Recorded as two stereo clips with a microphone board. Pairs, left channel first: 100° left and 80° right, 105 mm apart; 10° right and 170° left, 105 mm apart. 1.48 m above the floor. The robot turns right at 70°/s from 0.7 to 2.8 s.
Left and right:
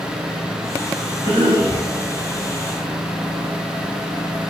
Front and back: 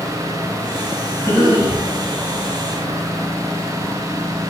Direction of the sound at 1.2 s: 65° right.